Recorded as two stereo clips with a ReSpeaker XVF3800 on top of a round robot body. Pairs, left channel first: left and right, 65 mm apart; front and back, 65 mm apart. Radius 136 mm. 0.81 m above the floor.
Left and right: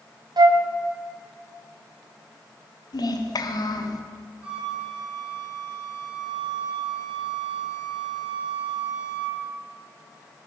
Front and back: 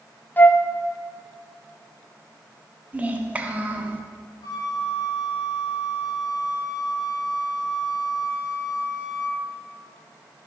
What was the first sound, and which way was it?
A flute, 65° right.